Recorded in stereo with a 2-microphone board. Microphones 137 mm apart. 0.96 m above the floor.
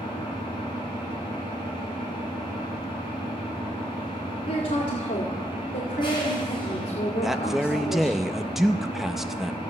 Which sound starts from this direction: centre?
A man speaking, at 7.2 s.